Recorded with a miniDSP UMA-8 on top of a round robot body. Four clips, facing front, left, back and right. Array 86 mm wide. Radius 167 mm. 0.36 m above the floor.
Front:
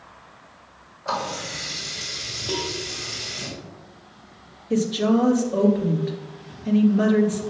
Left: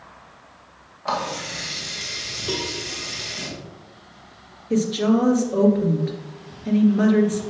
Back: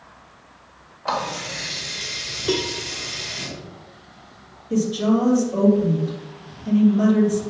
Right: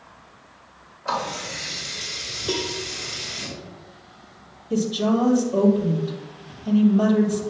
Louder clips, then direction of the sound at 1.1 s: Left 1 dB, back 2 dB; 150° left.